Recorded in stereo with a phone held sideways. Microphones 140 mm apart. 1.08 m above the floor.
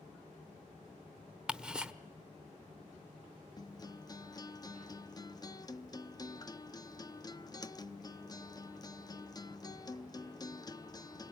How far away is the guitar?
About 0.7 m.